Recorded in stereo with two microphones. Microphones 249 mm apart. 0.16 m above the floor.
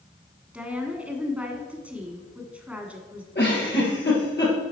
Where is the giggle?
45° left (ahead or behind), 3 m.